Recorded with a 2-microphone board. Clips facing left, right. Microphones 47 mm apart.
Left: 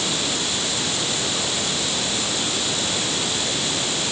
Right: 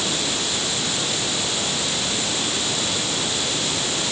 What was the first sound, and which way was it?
Only background noise.